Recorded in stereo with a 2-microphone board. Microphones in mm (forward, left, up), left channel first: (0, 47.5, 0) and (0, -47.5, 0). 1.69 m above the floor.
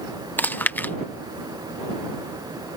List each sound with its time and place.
0.4 s chewing: 20° left (ahead or behind)